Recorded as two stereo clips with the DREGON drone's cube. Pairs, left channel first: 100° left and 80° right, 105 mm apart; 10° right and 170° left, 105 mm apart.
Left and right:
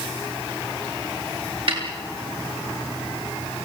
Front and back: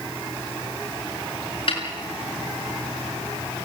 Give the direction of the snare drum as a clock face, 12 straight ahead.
1 o'clock.